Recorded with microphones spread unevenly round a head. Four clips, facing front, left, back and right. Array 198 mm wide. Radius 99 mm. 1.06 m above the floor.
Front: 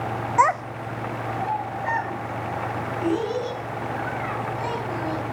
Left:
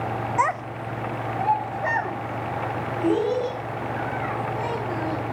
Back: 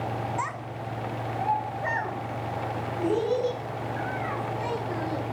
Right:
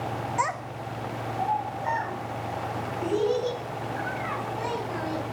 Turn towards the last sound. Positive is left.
turn(degrees=120)